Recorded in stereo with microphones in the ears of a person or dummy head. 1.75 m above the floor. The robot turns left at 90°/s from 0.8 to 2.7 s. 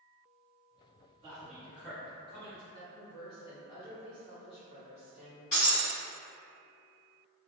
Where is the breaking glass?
30° left (ahead or behind), 1.5 m.